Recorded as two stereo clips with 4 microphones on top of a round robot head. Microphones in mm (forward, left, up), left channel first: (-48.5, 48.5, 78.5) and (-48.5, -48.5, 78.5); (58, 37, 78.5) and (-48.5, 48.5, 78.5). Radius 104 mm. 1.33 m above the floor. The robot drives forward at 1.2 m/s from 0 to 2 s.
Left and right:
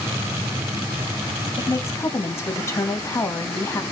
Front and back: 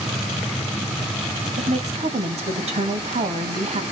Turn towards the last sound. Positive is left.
turn(degrees=155)